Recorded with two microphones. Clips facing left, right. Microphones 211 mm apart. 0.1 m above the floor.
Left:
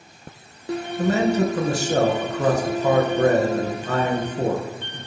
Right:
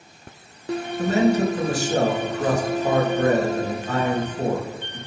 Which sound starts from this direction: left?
A man speaking, at 1.0 s.